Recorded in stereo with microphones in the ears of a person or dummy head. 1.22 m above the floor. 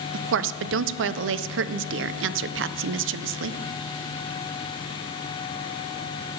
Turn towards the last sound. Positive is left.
turn(degrees=-65)  # may be behind; listen again after turning